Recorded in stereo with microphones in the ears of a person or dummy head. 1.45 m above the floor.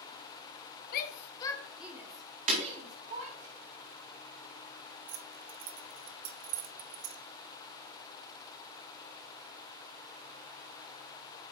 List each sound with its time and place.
0.9 s a shout: 60° left (ahead or behind), 0.8 m; by 3.5 s 40° right (ahead or behind), 2 m
2.5 s breaking glass: 40° right (ahead or behind), 1.7 m
5.1 s keys jangling: 40° right (ahead or behind), 0.5 m